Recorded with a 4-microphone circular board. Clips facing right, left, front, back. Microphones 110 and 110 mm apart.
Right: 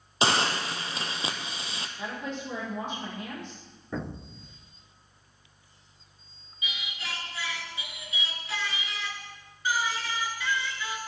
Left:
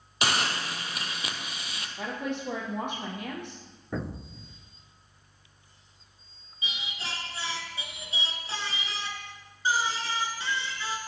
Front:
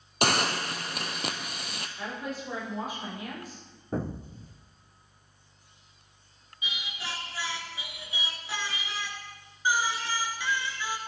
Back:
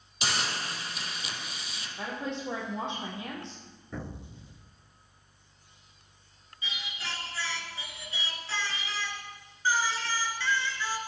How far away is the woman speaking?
About 4.5 m.